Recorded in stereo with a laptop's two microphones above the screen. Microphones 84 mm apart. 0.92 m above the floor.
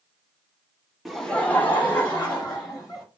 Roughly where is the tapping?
No tapping in this recording.